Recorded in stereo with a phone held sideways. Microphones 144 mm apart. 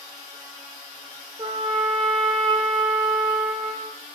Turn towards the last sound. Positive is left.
turn(degrees=-35)  # may be behind; listen again after turning